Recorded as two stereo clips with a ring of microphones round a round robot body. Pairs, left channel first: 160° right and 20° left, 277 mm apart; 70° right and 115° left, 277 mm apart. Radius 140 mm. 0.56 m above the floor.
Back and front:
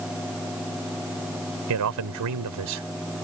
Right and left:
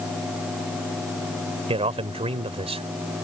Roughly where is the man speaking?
Ahead left.